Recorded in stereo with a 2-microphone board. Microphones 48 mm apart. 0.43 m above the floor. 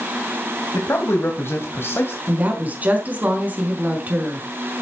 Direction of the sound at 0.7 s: 65° left (ahead or behind).